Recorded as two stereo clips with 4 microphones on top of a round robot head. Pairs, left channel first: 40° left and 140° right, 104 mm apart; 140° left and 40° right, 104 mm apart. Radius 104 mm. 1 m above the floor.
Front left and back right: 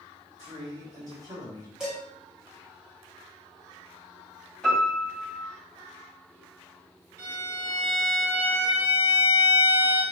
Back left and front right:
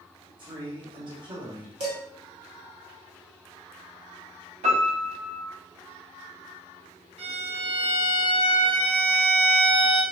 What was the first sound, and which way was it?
A man speaking, 85° right.